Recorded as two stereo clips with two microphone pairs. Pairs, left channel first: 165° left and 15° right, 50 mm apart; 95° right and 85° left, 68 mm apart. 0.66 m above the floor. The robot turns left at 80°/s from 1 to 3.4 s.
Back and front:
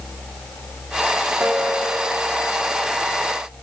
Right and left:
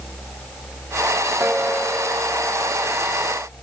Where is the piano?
40° left, 1.5 m; by 2.7 s 65° right, 1.5 m.